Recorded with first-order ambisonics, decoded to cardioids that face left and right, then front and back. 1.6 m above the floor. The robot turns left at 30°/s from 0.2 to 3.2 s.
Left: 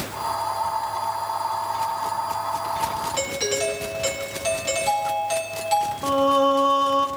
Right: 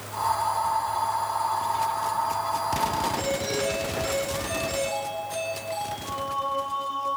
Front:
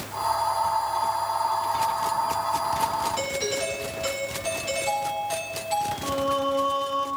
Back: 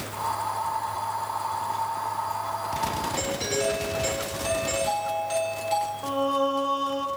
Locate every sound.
3.2 s a doorbell: 95° left, 3 m; by 5.9 s 90° left, 3 m
6.0 s singing: 90° left, 0.8 m